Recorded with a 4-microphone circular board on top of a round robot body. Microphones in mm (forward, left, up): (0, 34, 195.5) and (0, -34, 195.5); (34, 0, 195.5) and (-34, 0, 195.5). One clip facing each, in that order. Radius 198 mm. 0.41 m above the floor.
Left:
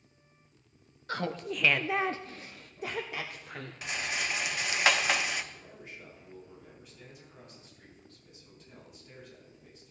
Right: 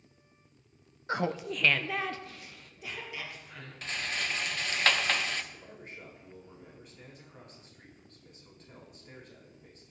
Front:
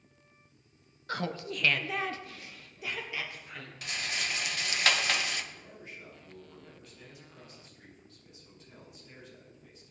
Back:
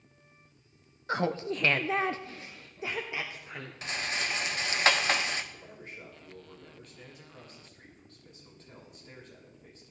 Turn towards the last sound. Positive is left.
turn(degrees=-135)